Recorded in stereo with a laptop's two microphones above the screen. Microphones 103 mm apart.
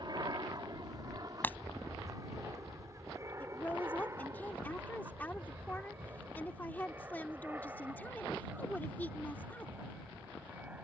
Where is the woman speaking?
15° left (ahead or behind).